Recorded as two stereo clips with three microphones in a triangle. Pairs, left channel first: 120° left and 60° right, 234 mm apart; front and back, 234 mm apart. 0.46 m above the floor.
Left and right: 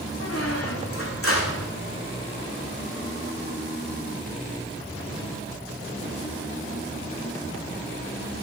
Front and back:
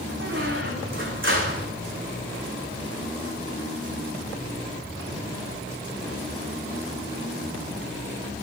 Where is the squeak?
145° left, 2 m.